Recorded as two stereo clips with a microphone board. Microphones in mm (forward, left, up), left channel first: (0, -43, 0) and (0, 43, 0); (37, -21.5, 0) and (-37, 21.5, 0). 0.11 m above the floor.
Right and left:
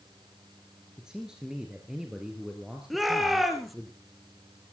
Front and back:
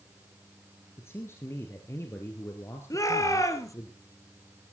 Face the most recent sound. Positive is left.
turn(degrees=5)